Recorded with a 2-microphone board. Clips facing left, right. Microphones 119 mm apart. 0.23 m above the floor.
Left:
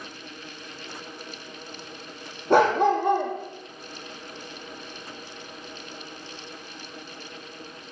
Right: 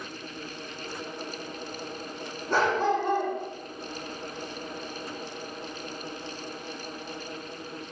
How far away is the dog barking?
About 3 m.